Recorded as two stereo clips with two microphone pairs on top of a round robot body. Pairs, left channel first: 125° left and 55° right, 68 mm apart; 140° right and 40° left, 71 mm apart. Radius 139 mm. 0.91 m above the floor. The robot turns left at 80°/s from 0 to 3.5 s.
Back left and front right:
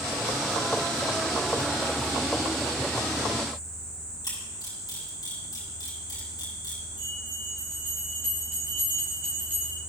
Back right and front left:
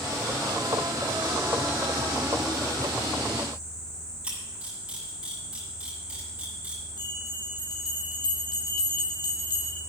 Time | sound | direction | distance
4.2 | a camera shutter | 115° left | 5 m
7.0 | a bell | 120° right | 0.5 m